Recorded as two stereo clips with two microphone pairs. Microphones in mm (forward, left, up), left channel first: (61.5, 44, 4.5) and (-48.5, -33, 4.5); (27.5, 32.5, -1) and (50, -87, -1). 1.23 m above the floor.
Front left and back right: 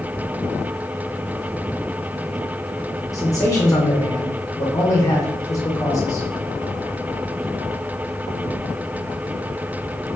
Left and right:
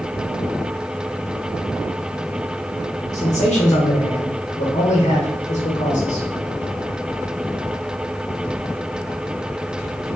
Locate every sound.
3.1 s a man speaking: 100° left, 1.6 m